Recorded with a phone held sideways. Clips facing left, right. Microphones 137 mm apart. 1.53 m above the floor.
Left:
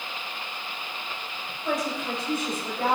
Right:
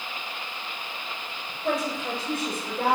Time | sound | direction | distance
1.6 | a woman speaking | 55° right (ahead or behind) | 8.5 m